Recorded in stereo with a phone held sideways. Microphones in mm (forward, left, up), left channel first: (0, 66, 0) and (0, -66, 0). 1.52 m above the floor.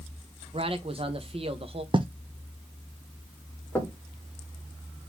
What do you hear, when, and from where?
0.5 s a man speaking: 45° right (ahead or behind), 1.2 m
1.9 s writing: 40° right (ahead or behind), 0.7 m
3.8 s knocking: 15° left (ahead or behind), 1.5 m